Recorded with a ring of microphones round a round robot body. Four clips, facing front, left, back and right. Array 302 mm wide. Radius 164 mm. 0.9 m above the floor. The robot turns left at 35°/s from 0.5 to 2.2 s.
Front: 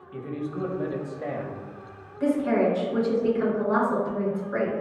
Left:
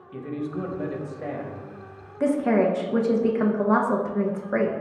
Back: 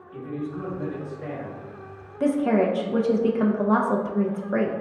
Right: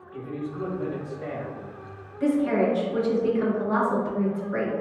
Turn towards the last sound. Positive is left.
turn(degrees=135)